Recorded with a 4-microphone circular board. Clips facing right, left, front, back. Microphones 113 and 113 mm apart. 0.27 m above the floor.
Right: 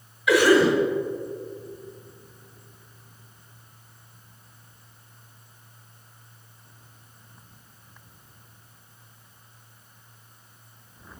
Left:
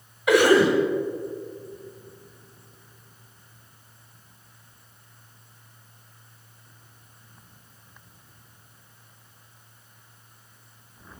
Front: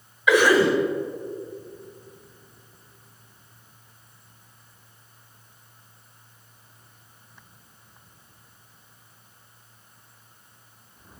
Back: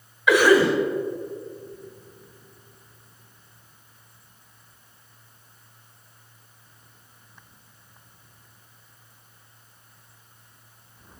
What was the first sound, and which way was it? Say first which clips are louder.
A cough: even, back 1 dB; 80° left.